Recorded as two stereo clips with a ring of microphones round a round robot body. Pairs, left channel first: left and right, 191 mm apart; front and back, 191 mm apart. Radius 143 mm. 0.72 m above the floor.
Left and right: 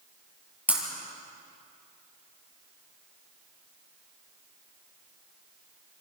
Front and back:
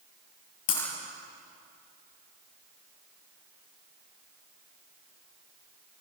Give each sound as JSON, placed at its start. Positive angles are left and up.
{"t": 0.7, "sound": "breaking glass", "azimuth_deg": -10, "distance_m": 7.0}